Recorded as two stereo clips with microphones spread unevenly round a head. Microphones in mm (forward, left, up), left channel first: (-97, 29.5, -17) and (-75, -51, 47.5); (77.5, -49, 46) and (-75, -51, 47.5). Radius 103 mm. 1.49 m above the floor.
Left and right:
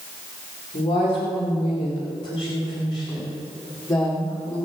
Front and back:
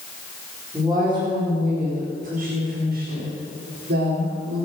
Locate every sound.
0.7 s a woman speaking: 105° left, 4.5 m; by 4.7 s 165° left, 5 m